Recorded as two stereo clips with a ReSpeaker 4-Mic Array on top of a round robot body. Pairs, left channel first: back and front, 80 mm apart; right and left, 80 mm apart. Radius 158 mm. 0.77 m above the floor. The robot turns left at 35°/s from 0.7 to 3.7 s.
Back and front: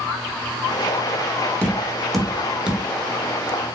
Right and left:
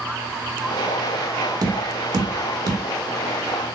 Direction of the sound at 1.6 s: 110° left.